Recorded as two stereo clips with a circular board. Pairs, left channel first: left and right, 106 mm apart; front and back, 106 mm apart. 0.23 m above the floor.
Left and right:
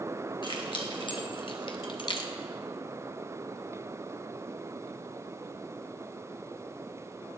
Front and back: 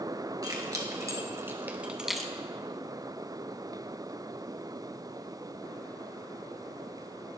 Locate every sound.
0.4 s keys jangling: 130° left, 2.5 m; by 2.3 s 80° left, 1.0 m